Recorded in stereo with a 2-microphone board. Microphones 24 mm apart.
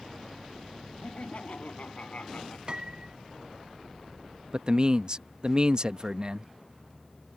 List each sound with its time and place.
1.0 s laughter: 65° left (ahead or behind)
2.7 s a piano: 35° right (ahead or behind)
4.5 s a man speaking: 40° right (ahead or behind)